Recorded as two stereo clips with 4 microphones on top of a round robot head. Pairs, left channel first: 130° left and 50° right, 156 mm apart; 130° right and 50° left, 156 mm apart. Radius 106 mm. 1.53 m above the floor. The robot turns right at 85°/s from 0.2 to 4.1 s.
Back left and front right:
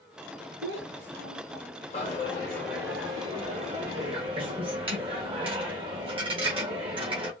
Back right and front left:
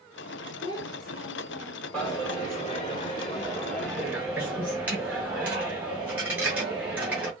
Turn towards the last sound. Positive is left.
turn(degrees=-20)